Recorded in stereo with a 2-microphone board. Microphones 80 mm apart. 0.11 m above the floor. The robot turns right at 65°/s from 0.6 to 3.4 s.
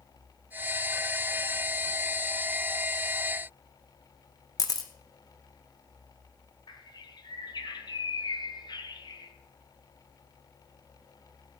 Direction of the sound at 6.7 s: 70° left (ahead or behind).